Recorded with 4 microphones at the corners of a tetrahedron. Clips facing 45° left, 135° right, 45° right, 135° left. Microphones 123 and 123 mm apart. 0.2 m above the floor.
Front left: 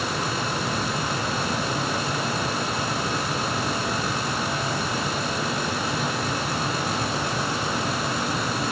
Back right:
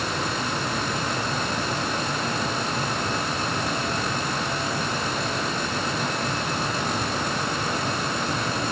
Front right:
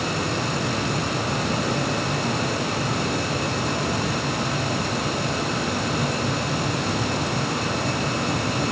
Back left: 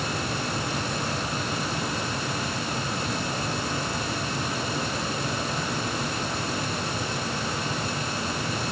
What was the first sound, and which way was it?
Only background noise.